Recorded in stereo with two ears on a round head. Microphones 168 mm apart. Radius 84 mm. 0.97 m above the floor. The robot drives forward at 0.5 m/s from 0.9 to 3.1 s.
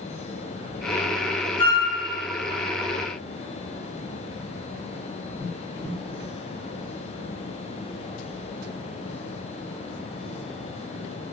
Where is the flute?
25° left (ahead or behind), 1.5 m.